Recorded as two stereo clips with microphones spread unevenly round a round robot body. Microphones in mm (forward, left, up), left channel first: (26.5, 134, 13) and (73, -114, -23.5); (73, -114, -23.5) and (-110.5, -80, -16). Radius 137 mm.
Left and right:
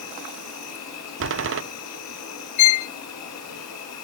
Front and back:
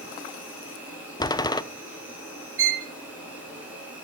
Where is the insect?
85° left, 4.5 m.